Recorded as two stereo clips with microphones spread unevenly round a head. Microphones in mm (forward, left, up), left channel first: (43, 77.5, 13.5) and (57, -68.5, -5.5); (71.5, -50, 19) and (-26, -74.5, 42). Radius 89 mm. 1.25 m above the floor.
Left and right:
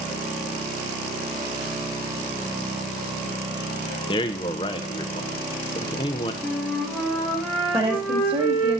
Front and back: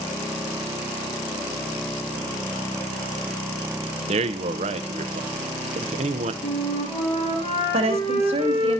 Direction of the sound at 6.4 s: 5° left.